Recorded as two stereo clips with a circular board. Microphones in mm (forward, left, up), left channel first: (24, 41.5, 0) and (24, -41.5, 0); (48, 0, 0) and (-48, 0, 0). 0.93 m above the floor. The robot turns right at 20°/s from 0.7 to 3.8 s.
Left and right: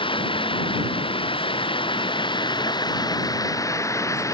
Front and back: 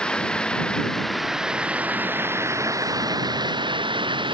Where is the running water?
80° left; by 4.3 s 145° left.